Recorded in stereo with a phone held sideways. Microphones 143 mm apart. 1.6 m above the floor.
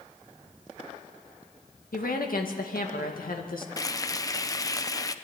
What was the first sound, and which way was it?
A woman speaking, 85° left.